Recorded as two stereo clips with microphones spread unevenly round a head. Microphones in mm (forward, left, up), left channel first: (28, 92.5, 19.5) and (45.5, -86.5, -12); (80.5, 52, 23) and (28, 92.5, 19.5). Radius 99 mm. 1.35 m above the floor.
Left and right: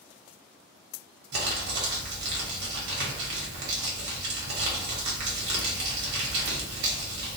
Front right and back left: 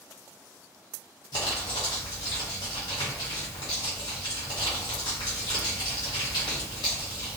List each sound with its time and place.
1.3 s crumpling: 65° right, 0.9 m